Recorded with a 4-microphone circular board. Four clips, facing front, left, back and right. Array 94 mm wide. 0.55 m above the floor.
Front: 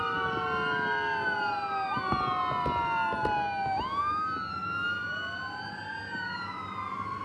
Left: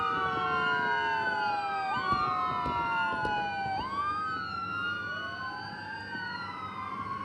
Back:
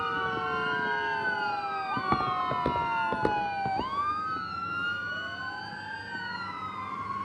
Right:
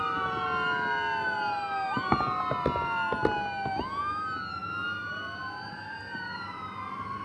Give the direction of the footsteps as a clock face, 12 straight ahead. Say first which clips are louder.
Right 2 dB, back 3 dB; 4 o'clock.